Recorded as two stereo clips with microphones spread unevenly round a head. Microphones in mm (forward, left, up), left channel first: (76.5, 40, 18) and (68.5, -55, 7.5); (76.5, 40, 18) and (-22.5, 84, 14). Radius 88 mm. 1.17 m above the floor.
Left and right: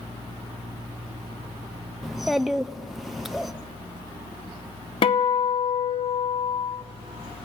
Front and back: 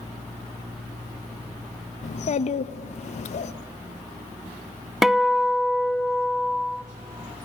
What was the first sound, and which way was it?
A child speaking, 5° right.